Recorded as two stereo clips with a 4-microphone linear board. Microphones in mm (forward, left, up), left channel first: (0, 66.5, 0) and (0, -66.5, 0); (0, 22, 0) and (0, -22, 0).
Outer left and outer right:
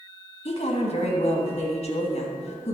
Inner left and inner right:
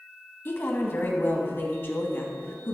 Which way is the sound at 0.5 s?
55° left (ahead or behind).